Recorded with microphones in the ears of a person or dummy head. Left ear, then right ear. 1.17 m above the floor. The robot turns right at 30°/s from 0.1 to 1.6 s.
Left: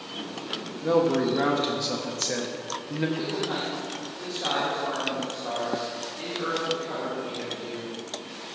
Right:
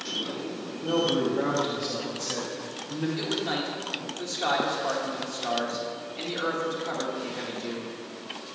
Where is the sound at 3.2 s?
65° right (ahead or behind), 1.8 m.